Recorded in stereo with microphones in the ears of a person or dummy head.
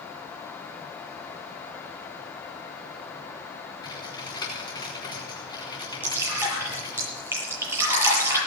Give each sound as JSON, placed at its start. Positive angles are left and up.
{"t": 3.8, "sound": "typing on a keyboard", "side_deg": 25, "distance_m": 4.5}
{"t": 6.0, "sound": "dripping", "side_deg": -15, "distance_m": 8.0}